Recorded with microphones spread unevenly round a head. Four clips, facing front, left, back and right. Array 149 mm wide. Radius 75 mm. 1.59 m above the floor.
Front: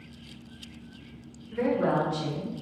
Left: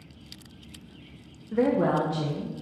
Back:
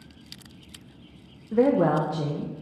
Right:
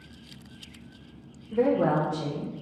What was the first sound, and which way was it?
A woman speaking, 170° left.